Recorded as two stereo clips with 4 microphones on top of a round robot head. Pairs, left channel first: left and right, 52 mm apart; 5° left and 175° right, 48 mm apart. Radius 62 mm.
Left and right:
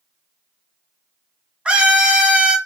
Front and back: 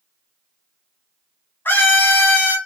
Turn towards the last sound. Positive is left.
turn(degrees=-25)